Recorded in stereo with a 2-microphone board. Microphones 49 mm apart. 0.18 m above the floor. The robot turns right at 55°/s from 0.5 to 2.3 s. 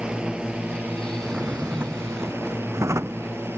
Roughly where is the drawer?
Behind.